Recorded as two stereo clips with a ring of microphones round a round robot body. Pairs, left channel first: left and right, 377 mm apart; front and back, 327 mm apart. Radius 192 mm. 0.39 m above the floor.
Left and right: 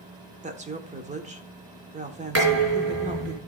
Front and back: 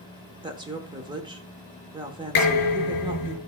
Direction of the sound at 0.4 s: 125° right.